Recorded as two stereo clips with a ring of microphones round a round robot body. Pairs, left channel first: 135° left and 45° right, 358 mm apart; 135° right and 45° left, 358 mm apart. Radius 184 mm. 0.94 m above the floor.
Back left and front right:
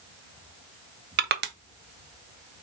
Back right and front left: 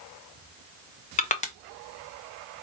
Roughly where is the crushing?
Right.